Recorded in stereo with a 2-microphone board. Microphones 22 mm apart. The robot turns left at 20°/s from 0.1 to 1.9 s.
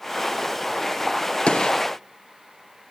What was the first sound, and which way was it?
A gunshot, 55° left (ahead or behind).